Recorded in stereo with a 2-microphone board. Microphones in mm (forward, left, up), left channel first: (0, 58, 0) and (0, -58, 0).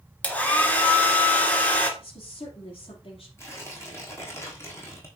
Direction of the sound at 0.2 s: 10° left (ahead or behind).